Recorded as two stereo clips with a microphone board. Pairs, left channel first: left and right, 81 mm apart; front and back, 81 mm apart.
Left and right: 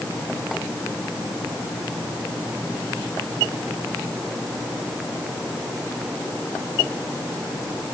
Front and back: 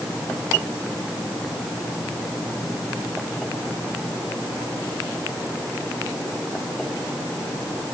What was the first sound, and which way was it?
Only background noise.